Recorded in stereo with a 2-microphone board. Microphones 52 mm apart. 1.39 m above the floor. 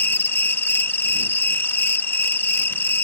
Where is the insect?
45° left (ahead or behind).